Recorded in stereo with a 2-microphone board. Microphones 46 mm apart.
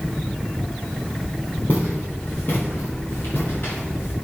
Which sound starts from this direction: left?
Footsteps, at 1.7 s.